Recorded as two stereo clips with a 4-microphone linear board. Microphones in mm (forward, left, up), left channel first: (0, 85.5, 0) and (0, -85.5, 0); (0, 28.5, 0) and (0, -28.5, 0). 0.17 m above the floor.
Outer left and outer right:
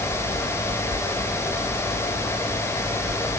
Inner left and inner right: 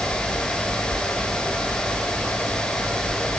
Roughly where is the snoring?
No snoring in this recording.